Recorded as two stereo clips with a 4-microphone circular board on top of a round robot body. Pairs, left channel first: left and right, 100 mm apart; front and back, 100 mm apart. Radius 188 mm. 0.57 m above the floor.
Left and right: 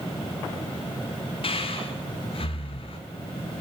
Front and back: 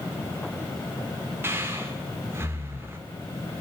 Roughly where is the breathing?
Behind left.